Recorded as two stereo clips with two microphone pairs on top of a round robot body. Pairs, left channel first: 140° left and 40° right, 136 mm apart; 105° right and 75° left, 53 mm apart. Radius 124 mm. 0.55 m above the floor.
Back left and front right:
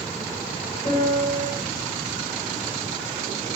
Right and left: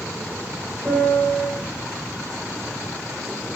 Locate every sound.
0.8 s a piano: 150° left, 3 m